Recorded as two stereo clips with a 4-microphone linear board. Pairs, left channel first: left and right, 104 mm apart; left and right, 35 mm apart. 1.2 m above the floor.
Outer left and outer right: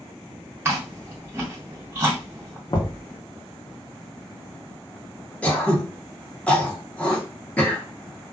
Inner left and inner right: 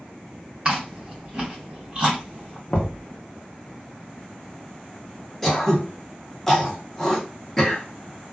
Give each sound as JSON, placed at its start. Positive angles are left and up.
{"t": 0.7, "sound": "chewing", "side_deg": -20, "distance_m": 1.7}
{"t": 2.7, "sound": "knocking", "side_deg": 40, "distance_m": 0.6}
{"t": 5.4, "sound": "throat clearing", "side_deg": 10, "distance_m": 0.8}